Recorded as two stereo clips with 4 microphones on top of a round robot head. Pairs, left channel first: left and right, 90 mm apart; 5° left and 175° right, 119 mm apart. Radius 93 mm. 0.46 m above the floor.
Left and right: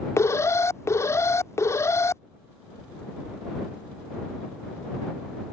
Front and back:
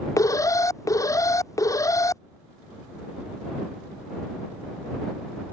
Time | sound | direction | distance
0.2 | an alarm | 50° left | ?